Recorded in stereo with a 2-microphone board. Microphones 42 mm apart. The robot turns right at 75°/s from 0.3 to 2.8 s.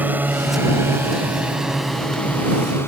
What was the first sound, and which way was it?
A drone, 45° right (ahead or behind).